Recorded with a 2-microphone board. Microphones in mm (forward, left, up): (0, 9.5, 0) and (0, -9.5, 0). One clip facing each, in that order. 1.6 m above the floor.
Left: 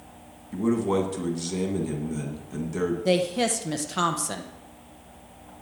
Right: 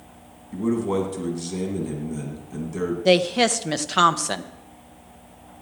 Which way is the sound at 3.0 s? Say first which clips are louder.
Right 7 dB; 35° right (ahead or behind).